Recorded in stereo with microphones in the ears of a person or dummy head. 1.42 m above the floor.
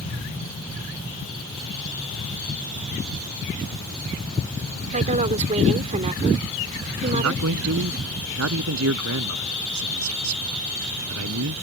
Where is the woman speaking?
35° right (ahead or behind).